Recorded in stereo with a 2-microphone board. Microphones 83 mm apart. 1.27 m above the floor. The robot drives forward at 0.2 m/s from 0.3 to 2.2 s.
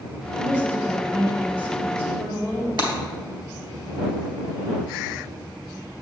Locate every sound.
0.4 s a woman speaking: 20° right (ahead or behind), 3.5 m; by 2.7 s 15° right (ahead or behind), 4 m
2.8 s breaking glass: 60° right (ahead or behind), 2.5 m